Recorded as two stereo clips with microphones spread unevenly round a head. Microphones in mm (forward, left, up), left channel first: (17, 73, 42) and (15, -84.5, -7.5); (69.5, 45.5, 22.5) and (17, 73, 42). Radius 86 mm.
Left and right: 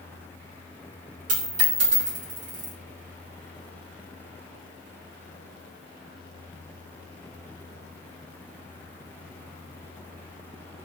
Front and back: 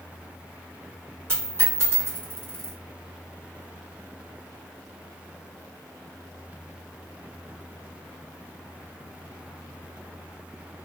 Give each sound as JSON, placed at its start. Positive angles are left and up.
{"t": 1.3, "sound": "a dropped coin", "azimuth_deg": -140, "distance_m": 1.1}